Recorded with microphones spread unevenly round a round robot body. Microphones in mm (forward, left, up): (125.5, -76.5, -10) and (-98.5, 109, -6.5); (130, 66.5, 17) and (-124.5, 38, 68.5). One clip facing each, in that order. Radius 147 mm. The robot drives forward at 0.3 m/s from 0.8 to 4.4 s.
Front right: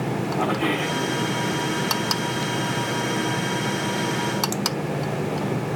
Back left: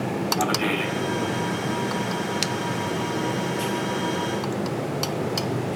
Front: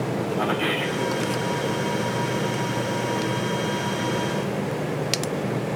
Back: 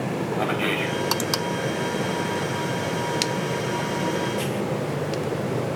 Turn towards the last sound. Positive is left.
turn(degrees=110)